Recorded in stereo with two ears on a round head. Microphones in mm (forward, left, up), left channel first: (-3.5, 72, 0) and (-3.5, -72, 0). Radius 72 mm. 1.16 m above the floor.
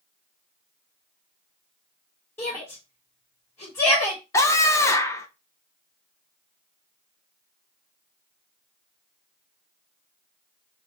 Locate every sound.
2.4 s a shout: 20° left (ahead or behind), 2.5 m
4.3 s a scream: 20° left (ahead or behind), 1.0 m